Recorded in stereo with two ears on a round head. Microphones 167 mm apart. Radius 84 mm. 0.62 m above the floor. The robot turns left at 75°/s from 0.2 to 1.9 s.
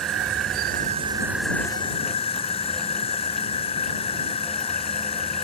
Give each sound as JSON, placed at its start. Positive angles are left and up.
{"t": 0.0, "sound": "an insect", "azimuth_deg": -85}